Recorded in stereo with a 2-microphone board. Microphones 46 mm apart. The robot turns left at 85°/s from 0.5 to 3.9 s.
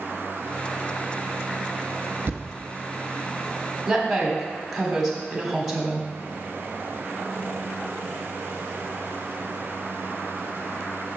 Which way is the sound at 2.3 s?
50° right (ahead or behind).